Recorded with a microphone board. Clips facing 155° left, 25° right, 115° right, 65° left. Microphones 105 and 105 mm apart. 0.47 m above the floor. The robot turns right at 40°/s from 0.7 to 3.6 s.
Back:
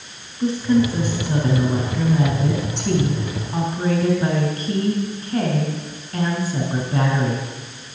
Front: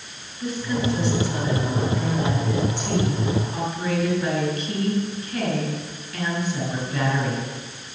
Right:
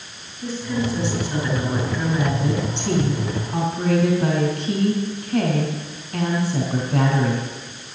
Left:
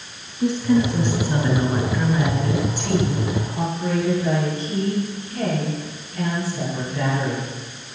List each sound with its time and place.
0.4 s a woman speaking: 95° left, 5 m; by 7.5 s 145° right, 5 m